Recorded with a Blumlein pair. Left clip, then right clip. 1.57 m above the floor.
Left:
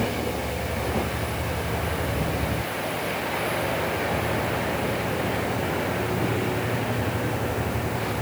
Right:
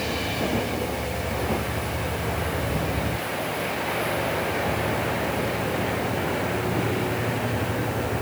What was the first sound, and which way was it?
Only background noise.